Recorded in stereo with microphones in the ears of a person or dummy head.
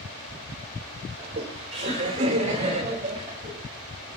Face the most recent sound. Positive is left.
turn(degrees=-35)  # may be behind; listen again after turning